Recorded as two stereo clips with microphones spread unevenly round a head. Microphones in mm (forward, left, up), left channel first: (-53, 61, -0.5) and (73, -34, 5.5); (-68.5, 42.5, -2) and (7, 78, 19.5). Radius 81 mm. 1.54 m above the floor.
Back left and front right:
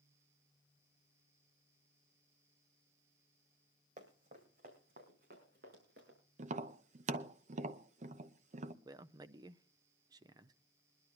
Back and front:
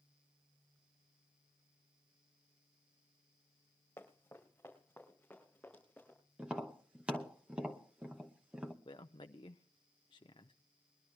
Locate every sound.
4.0 s running footsteps: 75° right, 3 m; by 6.2 s 65° right, 6 m
6.4 s tapping: 35° right, 0.8 m
8.8 s a man speaking: 100° right, 0.5 m